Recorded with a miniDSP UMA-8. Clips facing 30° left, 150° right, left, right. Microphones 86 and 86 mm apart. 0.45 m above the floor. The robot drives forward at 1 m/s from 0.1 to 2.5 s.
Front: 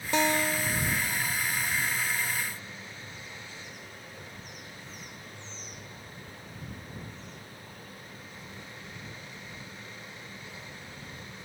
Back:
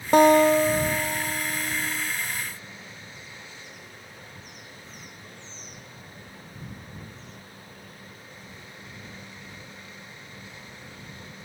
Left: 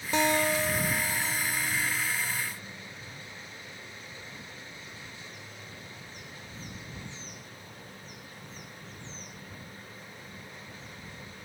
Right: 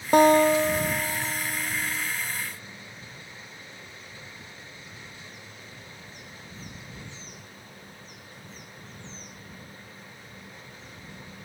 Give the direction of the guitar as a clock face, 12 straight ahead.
4 o'clock.